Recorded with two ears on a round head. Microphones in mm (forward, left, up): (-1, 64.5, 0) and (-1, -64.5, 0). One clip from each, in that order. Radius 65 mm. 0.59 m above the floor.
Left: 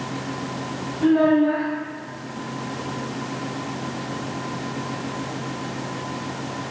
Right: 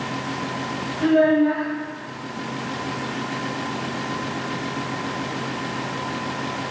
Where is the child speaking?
45° right (ahead or behind), 0.9 m.